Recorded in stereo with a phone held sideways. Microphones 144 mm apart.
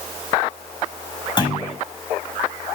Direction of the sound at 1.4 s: 35° left (ahead or behind).